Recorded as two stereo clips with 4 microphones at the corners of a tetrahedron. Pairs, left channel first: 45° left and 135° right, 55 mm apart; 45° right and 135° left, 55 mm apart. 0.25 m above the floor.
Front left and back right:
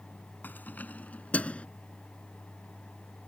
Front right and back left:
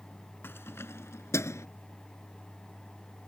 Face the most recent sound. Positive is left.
turn(degrees=-20)